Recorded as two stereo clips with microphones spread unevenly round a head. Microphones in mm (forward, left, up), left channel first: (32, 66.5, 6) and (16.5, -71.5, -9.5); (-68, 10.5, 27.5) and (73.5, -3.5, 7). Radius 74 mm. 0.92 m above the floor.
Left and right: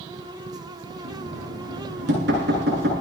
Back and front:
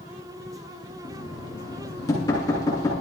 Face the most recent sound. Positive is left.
turn(degrees=-120)